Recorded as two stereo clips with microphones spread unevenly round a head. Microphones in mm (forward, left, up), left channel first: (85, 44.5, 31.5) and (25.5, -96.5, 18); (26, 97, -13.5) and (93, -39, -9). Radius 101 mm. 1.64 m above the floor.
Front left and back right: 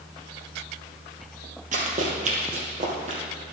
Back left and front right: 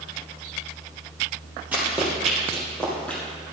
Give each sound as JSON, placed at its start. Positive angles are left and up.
{"t": 1.7, "sound": "running footsteps", "azimuth_deg": -140, "distance_m": 2.0}